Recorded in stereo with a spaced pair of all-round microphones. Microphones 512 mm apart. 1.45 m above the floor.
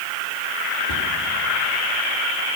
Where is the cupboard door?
50° left (ahead or behind), 2.5 m.